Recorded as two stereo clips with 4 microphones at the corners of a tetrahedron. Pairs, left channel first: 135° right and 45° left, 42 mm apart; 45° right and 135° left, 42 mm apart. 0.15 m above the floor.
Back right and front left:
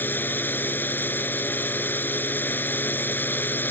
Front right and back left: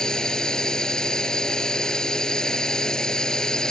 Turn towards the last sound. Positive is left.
turn(degrees=-115)